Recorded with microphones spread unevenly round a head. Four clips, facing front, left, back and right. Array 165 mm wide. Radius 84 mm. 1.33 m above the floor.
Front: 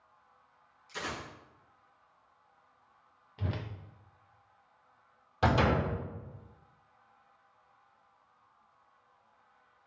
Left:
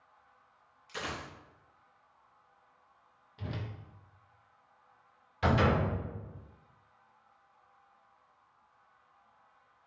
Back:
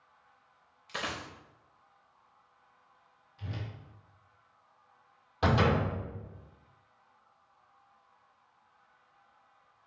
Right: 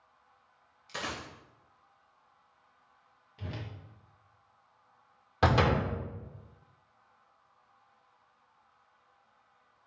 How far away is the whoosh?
About 0.8 m.